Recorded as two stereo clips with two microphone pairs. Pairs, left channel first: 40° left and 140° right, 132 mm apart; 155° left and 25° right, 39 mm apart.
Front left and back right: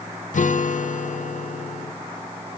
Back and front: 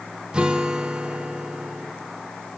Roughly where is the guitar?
Ahead left.